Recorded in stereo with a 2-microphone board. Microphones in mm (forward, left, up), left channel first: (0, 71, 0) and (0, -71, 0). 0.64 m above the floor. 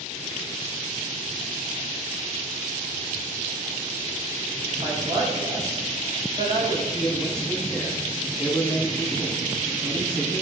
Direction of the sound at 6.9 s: 5° left (ahead or behind).